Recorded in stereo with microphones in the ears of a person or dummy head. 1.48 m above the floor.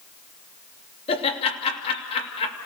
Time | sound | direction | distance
1.1 | laughter | 30° left (ahead or behind) | 2.5 m